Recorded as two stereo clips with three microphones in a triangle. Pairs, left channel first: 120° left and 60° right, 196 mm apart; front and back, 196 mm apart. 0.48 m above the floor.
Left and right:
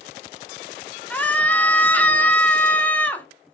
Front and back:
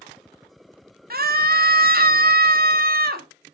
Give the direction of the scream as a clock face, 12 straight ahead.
5 o'clock.